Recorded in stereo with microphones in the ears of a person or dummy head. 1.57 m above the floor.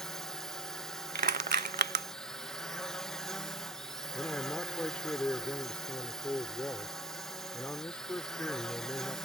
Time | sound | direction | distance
0.0 | a drone | 5° left (ahead or behind) | ?
1.1 | crushing | 40° right (ahead or behind) | ?
4.1 | a man speaking | 10° left (ahead or behind) | ?